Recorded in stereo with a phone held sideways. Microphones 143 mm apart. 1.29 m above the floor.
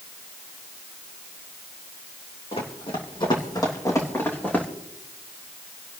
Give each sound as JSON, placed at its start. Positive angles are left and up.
{"t": 2.5, "sound": "running footsteps", "side_deg": 50, "distance_m": 3.0}